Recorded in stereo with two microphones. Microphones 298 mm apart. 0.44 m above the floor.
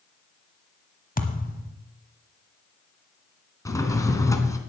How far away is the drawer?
About 1.1 m.